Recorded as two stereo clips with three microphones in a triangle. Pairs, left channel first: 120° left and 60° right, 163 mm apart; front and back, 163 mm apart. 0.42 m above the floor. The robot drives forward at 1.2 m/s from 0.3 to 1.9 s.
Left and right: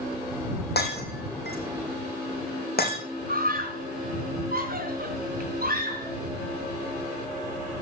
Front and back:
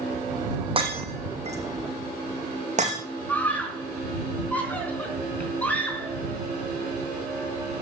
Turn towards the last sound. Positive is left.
turn(degrees=-80)